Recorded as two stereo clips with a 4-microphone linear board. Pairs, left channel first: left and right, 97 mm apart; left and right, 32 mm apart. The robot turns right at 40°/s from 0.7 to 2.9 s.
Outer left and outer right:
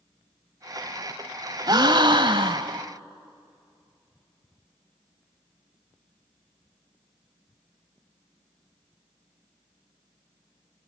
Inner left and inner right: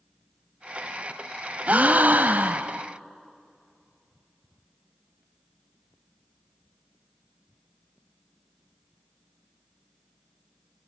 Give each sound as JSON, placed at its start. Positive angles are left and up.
{"t": 1.7, "sound": "a gasp", "azimuth_deg": -120, "distance_m": 1.0}